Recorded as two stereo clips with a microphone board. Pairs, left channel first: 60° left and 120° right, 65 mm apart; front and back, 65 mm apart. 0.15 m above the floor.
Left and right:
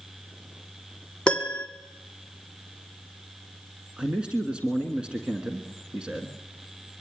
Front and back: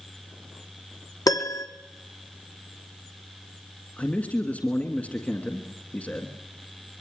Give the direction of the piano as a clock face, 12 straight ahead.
12 o'clock.